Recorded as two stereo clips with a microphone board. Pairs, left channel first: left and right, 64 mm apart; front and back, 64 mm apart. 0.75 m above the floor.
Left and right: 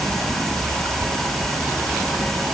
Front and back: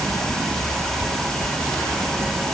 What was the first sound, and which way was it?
Only background noise.